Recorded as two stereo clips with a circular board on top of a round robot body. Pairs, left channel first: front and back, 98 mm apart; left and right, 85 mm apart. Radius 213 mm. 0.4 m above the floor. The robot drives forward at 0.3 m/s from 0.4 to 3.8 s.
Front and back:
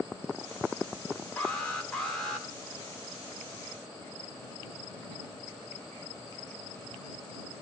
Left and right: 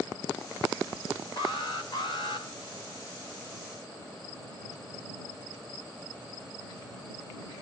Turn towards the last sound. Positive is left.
turn(degrees=90)